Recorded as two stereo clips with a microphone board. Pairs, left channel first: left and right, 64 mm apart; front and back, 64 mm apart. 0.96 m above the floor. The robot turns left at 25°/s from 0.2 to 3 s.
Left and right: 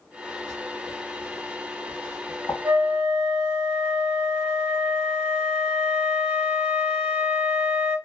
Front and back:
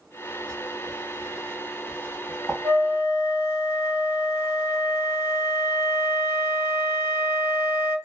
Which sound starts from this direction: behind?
Writing, at 0.5 s.